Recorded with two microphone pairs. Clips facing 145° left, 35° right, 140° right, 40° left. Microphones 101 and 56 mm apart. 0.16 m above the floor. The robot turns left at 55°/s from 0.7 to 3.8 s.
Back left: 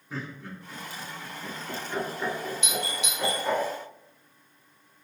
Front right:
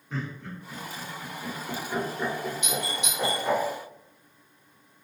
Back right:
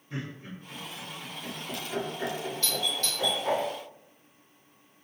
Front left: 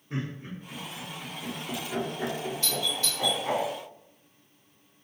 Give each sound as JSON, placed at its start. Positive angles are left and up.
{"t": 0.1, "sound": "laughter", "azimuth_deg": 65, "distance_m": 1.6}
{"t": 2.6, "sound": "a doorbell", "azimuth_deg": 5, "distance_m": 1.6}